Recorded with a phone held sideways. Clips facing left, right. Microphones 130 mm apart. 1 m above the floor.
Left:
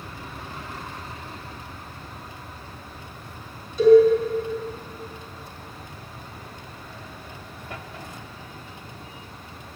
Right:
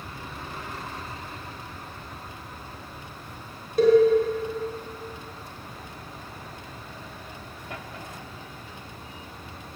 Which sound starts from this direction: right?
A cowbell, at 3.8 s.